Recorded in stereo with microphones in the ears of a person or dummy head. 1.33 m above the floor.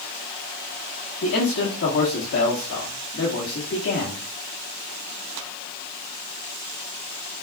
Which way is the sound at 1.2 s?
60° left (ahead or behind).